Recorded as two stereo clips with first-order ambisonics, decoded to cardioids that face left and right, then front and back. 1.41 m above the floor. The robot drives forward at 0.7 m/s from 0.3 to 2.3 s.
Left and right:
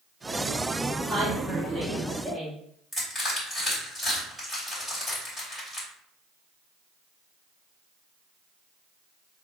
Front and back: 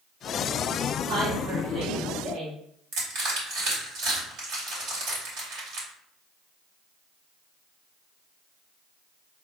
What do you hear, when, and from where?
1.1 s a woman speaking: 165° right, 1.3 m; by 2.6 s 170° right, 2 m
2.9 s crushing: straight behind, 2.5 m